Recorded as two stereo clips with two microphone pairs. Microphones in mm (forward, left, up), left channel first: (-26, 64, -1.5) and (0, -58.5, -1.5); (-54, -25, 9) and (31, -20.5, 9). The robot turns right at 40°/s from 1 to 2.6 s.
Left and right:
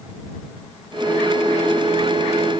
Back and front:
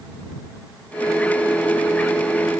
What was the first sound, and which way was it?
Only background noise.